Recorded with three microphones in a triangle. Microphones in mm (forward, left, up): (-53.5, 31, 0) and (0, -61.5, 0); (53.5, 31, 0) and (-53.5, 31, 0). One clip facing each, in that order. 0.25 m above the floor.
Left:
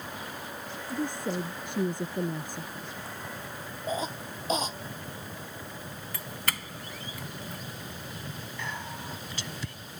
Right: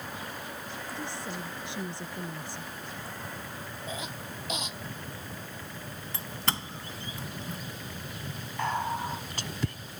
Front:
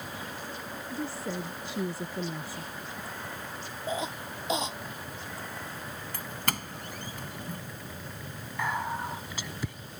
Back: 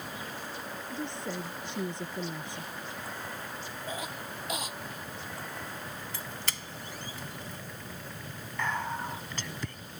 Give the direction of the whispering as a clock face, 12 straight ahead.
3 o'clock.